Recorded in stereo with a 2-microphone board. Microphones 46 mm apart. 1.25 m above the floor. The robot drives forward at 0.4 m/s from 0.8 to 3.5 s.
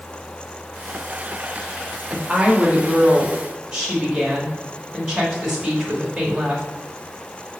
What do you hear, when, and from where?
2.1 s a woman speaking: 20° right (ahead or behind), 1.6 m; by 6.7 s 15° right (ahead or behind), 2 m